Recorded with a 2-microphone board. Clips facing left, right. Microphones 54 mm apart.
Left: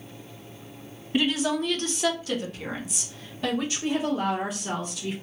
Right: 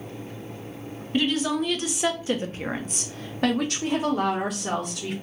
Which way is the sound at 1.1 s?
10° left (ahead or behind).